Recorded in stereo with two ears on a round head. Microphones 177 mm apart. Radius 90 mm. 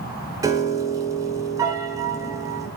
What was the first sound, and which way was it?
A piano, 15° right (ahead or behind).